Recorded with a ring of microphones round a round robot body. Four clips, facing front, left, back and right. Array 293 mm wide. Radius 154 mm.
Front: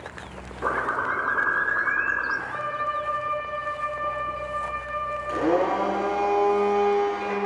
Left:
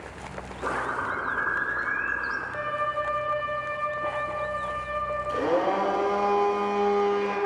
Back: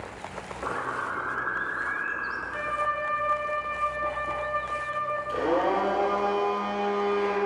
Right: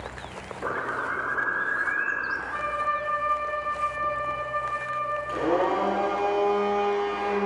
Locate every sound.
0.6 s a bird: 5° right, 1.2 m
2.5 s a violin: 55° right, 3.5 m
5.3 s a blender: 25° right, 5.5 m